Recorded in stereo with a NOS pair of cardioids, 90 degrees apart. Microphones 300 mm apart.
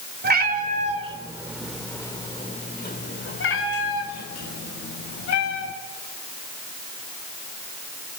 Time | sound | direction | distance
0.2 | a cat meowing | 35° right | 2.5 m